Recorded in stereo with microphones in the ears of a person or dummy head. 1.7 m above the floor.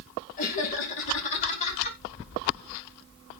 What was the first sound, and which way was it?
Laughter, 45° left (ahead or behind).